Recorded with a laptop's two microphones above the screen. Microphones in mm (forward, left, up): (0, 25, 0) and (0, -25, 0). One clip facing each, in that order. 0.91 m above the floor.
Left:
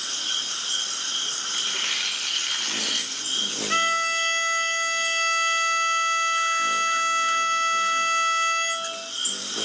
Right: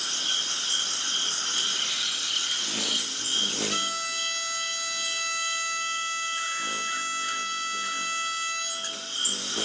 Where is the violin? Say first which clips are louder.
Left 8 dB; 50° left (ahead or behind), 0.6 m.